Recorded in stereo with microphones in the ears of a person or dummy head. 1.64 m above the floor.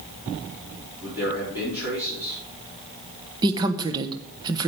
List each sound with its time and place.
1.0 s a man speaking: 10° right (ahead or behind), 4.5 m
3.4 s a woman speaking: 25° right (ahead or behind), 1.0 m